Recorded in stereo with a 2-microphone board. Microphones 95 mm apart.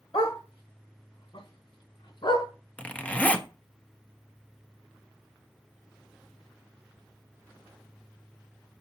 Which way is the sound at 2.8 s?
15° left (ahead or behind).